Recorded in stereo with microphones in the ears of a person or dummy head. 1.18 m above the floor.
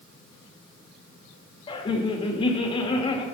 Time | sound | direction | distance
1.7 | laughter | 30° left (ahead or behind) | 1.6 m